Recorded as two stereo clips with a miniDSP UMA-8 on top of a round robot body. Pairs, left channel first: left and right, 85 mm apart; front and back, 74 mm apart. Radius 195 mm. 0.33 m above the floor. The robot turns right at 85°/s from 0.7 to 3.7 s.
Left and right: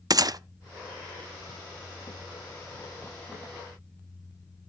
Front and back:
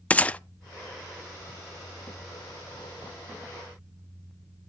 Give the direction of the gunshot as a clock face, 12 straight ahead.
2 o'clock.